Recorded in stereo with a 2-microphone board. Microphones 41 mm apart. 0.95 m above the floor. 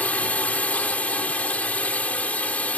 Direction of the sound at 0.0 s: 40° left (ahead or behind).